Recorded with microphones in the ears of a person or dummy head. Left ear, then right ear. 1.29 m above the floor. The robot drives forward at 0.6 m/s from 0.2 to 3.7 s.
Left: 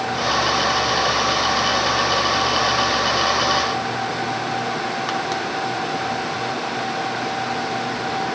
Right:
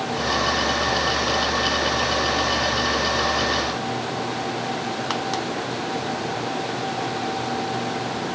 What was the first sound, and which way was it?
Only background noise.